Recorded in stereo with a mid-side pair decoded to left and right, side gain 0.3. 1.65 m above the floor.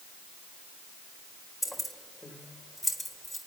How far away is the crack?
No crack in this recording.